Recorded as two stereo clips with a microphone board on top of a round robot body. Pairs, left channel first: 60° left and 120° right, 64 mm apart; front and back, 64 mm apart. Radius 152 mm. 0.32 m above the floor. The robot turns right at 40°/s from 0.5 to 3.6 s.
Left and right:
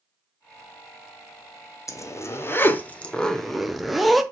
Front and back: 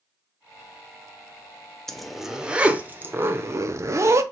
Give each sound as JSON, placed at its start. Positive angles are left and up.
{"t": 1.9, "sound": "a zipper", "azimuth_deg": 85, "distance_m": 0.8}